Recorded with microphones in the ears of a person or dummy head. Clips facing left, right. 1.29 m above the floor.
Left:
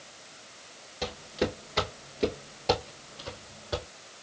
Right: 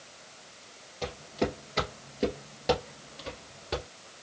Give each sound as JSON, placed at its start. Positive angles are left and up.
{"t": 1.0, "sound": "footsteps", "side_deg": 10, "distance_m": 1.8}